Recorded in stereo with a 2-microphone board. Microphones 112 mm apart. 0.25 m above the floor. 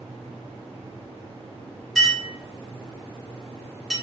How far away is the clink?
About 1.4 m.